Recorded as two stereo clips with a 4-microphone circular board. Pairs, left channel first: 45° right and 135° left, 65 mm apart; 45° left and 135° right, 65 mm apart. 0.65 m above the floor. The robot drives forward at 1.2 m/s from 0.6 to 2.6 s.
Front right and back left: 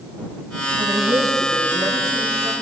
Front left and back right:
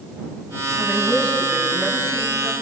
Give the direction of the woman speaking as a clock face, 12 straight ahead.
7 o'clock.